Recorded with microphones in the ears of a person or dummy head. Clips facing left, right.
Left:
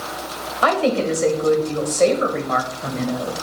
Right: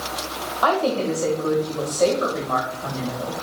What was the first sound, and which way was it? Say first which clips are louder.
A woman speaking: left 2 dB; 35° left (ahead or behind).